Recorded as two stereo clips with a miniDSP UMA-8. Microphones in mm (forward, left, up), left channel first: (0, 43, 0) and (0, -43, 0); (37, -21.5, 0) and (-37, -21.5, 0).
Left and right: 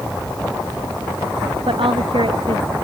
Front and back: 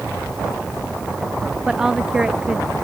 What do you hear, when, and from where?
1.7 s a woman speaking: 100° right